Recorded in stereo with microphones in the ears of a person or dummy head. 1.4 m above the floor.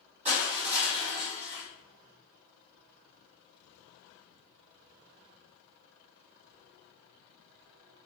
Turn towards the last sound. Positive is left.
turn(degrees=-30)  # may be behind; listen again after turning